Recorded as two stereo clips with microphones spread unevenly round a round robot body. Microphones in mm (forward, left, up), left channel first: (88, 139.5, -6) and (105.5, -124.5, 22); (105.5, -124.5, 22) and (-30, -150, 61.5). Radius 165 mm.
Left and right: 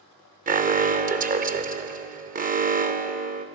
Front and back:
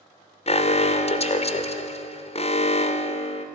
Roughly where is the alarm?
Ahead right.